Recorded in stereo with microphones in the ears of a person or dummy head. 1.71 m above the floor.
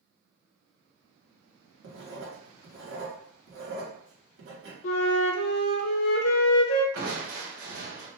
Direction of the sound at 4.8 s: 70° left (ahead or behind).